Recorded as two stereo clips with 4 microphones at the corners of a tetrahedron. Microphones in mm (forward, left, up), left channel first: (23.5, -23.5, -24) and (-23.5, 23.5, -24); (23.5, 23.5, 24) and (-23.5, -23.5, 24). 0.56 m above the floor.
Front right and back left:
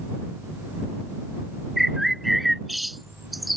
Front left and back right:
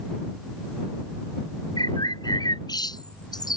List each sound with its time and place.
1.8 s a bird: 45° left